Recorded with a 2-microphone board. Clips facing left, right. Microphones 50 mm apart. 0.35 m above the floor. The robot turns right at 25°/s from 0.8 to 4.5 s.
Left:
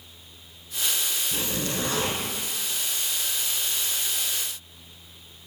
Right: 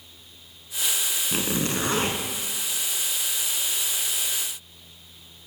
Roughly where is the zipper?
Right.